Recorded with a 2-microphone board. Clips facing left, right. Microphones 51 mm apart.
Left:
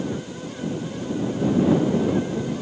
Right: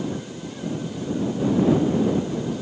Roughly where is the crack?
No crack in this recording.